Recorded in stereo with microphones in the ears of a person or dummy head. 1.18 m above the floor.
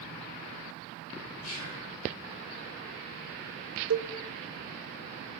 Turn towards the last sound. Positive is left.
turn(degrees=-80)